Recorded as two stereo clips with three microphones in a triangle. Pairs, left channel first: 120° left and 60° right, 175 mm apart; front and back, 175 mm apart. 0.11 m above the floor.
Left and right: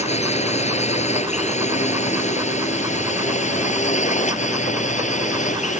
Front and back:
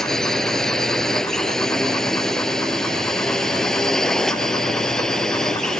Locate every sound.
0.0 s a drone: 85° left